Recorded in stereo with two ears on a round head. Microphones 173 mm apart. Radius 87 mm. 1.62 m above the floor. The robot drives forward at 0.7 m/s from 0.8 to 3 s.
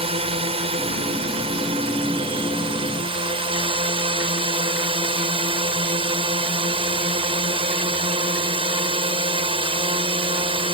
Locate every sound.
0.0 s a drone: 30° right (ahead or behind)